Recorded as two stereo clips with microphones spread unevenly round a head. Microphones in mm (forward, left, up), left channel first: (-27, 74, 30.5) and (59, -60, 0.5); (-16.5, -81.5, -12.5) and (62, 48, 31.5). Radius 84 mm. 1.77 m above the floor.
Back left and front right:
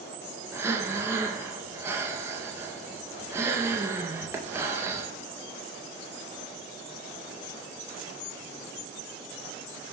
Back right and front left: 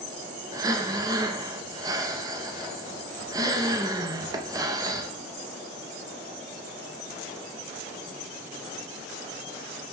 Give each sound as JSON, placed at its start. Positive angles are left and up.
{"t": 0.5, "sound": "breathing", "azimuth_deg": 25, "distance_m": 0.5}